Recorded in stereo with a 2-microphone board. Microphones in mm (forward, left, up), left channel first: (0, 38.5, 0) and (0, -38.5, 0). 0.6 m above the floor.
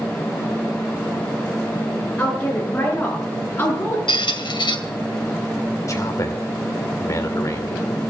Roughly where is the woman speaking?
Centre.